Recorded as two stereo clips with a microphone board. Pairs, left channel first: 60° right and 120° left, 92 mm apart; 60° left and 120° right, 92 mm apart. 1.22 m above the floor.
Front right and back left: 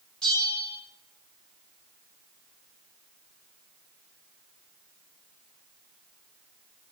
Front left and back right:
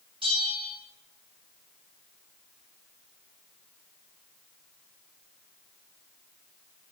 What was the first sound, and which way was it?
A bell, 140° right.